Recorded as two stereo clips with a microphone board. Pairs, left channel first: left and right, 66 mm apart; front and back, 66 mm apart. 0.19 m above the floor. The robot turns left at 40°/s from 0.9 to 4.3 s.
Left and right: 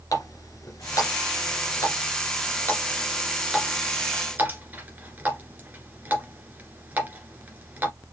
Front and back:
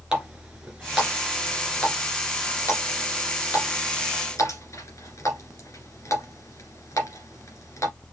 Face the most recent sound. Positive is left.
turn(degrees=-30)